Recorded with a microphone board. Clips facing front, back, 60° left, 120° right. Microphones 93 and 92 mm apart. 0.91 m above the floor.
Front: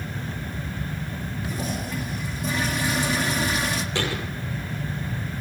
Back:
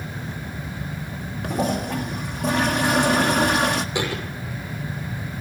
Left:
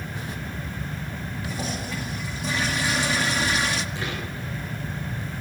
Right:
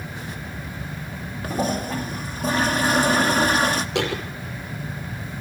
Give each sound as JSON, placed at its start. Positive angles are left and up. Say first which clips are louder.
{"t": 1.4, "sound": "a toilet flushing", "louder": "back 9 dB, right 9 dB", "azimuth_deg": -160, "distance_m": 1.7}
{"t": 4.0, "sound": "a thud", "louder": "back 2 dB, right 7 dB", "azimuth_deg": -105, "distance_m": 6.0}